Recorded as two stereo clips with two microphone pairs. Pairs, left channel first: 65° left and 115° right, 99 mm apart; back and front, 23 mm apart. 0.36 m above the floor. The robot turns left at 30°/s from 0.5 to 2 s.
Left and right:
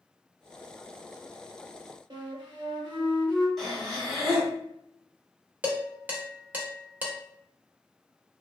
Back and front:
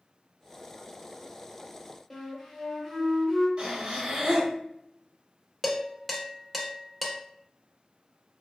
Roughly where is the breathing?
Ahead right.